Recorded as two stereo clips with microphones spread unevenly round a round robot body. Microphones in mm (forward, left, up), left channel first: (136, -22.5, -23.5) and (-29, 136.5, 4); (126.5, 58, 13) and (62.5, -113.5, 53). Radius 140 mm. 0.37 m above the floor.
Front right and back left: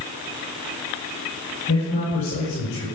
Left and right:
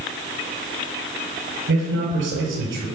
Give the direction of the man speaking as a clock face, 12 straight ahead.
3 o'clock.